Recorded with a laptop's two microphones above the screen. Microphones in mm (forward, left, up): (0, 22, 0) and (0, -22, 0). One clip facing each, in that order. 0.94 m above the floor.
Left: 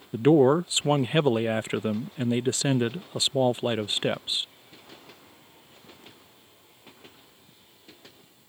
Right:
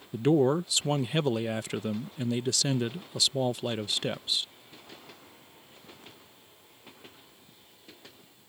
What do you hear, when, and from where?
0.1 s a man speaking: 30° left (ahead or behind)